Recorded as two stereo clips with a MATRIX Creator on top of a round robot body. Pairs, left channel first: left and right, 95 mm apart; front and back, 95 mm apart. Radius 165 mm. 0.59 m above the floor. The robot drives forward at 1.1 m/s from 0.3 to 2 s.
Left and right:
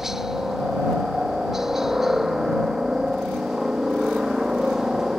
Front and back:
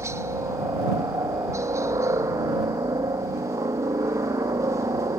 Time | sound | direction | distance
0.0 | a helicopter | 170° right | ?